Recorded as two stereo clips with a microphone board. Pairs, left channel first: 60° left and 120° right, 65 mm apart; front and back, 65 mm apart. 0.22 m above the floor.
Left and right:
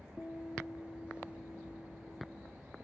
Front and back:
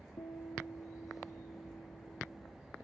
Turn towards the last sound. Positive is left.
turn(degrees=-20)